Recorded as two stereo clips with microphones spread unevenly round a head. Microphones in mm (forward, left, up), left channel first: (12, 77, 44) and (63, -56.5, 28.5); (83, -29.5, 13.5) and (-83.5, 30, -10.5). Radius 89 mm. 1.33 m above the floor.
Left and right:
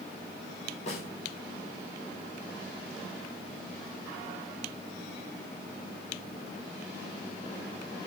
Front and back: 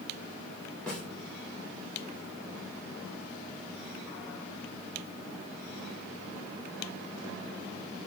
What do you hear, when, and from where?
0.9 s a snare drum: 65° left, 4 m